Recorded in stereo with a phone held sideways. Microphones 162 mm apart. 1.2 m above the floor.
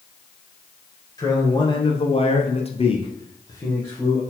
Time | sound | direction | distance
1.2 | a man speaking | 20° left (ahead or behind) | 1.1 m